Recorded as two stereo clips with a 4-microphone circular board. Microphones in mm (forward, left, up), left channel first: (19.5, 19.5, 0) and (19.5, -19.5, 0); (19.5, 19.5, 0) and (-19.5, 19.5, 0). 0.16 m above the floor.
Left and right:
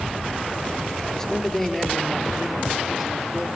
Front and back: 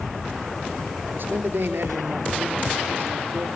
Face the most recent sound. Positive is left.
turn(degrees=-170)